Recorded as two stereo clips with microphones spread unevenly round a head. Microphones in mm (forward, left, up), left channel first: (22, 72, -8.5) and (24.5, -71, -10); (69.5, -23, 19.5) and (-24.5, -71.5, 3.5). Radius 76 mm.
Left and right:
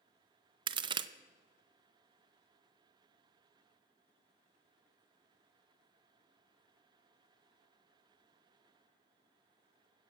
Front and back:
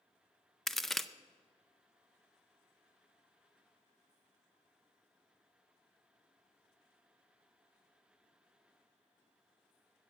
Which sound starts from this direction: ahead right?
A crack, at 0.7 s.